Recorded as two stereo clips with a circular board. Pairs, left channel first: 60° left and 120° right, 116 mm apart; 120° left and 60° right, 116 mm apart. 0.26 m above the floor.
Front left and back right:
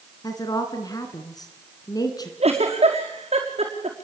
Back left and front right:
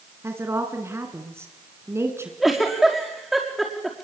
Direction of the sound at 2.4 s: 150° right.